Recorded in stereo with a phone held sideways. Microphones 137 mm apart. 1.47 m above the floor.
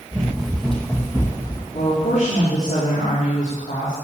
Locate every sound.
0.1 s running footsteps: 10° right (ahead or behind), 3 m; by 1.6 s 30° left (ahead or behind), 2.5 m
1.7 s a woman speaking: 65° left (ahead or behind), 4.5 m